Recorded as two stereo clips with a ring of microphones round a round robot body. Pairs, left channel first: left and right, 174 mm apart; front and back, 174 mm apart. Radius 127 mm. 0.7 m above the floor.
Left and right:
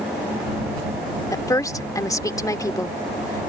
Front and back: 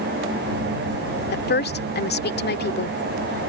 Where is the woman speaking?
20° left.